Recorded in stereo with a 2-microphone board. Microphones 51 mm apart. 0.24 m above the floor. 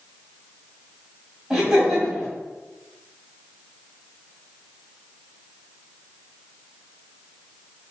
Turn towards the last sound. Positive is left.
turn(degrees=-15)  # may be behind; listen again after turning